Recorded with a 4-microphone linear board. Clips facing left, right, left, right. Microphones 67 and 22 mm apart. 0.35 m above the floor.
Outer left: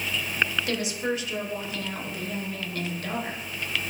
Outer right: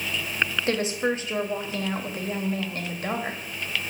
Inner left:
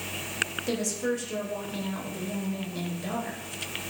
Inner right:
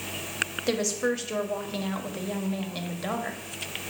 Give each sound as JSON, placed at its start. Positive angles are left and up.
{"t": 0.7, "sound": "a woman speaking", "side_deg": -35, "distance_m": 1.3}